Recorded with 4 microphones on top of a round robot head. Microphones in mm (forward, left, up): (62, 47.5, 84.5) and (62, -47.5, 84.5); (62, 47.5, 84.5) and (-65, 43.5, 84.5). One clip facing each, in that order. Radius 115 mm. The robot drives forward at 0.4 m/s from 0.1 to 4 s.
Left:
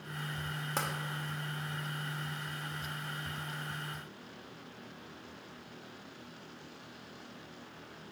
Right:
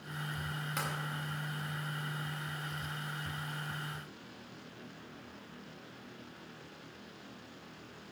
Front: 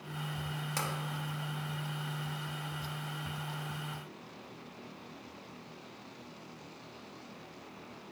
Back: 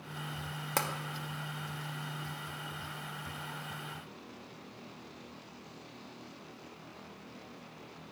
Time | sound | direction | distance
0.8 | tapping | 145° left | 0.8 m